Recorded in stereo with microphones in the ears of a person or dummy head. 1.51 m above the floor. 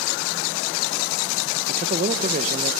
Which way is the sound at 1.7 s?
40° right (ahead or behind).